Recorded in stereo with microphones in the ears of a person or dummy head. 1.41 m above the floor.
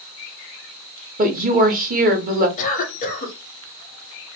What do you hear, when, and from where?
1.2 s a woman speaking: 40° right (ahead or behind), 0.8 m
2.6 s a cough: 45° left (ahead or behind), 1.3 m